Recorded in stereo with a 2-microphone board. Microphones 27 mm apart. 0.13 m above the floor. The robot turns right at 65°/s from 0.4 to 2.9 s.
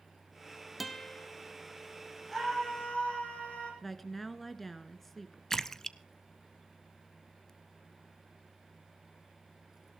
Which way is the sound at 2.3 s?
10° left.